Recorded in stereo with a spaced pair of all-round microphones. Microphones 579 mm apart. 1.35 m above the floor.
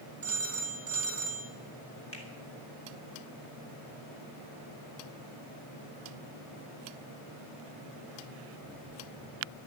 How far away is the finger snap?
About 3 m.